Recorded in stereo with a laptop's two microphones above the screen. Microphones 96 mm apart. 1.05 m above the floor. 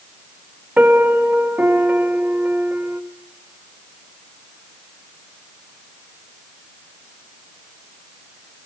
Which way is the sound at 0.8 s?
15° right (ahead or behind).